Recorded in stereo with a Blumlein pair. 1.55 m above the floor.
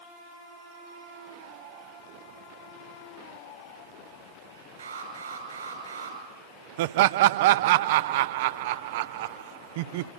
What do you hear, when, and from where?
4.8 s an alarm: 70° right, 7.5 m
6.8 s laughter: 50° right, 0.6 m